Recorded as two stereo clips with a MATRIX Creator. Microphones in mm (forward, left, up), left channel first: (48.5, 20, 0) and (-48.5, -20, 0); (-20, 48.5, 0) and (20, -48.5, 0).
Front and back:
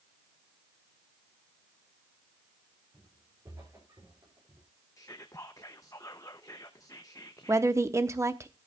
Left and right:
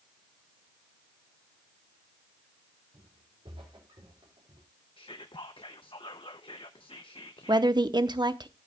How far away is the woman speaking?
About 0.8 m.